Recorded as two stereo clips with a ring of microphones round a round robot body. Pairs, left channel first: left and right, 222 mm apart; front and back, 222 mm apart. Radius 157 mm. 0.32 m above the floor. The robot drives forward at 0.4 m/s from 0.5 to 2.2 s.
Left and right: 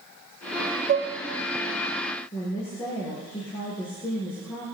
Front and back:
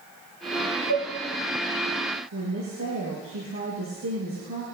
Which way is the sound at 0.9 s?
60° right.